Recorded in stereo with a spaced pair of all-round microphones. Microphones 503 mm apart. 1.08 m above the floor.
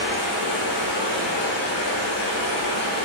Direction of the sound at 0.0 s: 30° left (ahead or behind).